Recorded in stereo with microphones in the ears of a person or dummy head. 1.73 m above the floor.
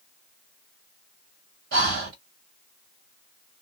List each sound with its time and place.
1.7 s breathing: 50° right (ahead or behind), 1.5 m